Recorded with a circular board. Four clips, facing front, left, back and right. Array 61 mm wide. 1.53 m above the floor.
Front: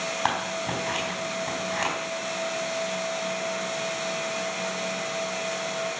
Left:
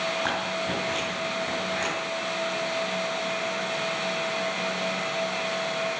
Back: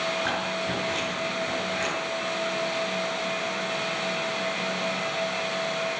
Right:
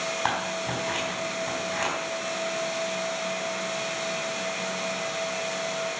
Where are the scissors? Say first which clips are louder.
Even, front 1 dB; 30° right, 4.5 m.